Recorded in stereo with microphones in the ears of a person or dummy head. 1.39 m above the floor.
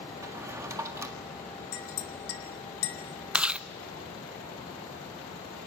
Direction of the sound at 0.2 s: 15° right (ahead or behind).